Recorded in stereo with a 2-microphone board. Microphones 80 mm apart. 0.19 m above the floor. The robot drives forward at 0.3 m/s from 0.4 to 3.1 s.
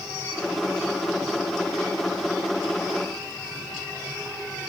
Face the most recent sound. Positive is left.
No sound to turn to.